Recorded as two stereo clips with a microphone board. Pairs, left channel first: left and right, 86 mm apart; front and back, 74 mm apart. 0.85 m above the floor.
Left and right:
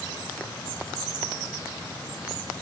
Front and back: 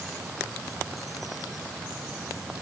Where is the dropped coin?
No dropped coin in this recording.